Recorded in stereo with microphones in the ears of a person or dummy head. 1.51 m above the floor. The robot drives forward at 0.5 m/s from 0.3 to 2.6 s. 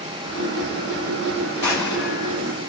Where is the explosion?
20° left (ahead or behind), 2.0 m; by 2.4 s 15° left (ahead or behind), 2.5 m.